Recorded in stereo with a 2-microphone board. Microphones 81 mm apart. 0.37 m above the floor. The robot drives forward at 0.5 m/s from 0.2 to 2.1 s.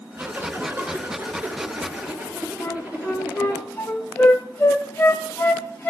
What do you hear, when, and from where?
0.2 s a zipper: 30° right (ahead or behind), 1.4 m; by 3.6 s 20° right (ahead or behind), 2.5 m
2.6 s a flute: 20° left (ahead or behind), 1.2 m